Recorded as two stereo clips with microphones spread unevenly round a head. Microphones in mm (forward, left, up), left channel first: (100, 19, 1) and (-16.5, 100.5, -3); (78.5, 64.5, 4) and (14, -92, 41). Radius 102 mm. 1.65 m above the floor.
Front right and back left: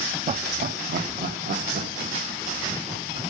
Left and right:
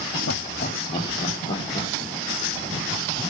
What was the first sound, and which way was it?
Laughter, 105° left.